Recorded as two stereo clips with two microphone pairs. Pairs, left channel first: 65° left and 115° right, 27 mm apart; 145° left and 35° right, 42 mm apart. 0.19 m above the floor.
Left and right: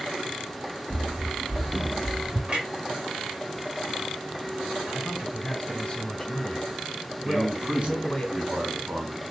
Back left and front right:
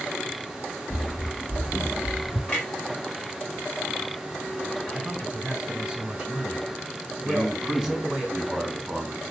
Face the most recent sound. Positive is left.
turn(degrees=-125)